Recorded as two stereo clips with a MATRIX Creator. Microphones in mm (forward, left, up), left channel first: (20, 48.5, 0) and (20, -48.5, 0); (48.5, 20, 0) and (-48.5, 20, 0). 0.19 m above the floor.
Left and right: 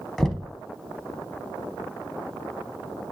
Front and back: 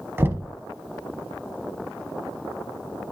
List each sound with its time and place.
0.2 s knocking: 170° left, 0.7 m